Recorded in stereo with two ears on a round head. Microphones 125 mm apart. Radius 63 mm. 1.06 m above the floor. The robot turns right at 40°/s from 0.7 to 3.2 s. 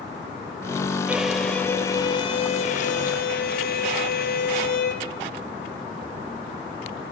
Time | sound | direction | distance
1.1 | a violin | 10° right | 2.5 m